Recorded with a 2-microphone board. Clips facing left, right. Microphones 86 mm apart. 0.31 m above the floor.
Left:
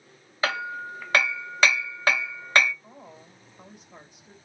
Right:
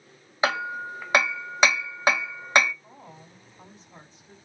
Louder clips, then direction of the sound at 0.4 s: Right 2 dB; 20° right (ahead or behind).